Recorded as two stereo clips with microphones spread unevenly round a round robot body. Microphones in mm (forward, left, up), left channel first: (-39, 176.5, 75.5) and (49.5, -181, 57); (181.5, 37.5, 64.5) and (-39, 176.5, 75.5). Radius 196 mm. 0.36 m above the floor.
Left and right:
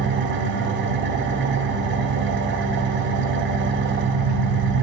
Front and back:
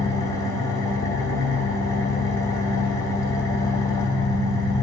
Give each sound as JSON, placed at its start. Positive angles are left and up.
{"t": 0.0, "sound": "an engine running", "azimuth_deg": -95, "distance_m": 1.1}